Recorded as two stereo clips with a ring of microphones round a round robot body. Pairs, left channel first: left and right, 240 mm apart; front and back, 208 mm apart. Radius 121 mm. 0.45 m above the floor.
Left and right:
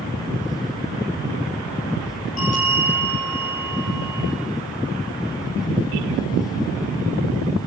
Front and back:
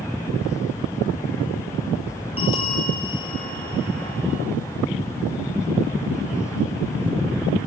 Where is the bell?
65° left, 8 m.